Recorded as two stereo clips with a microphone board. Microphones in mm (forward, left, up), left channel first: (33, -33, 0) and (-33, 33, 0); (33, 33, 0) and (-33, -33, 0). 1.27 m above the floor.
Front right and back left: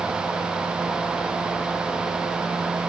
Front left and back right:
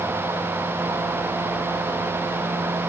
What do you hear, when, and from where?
Only background noise.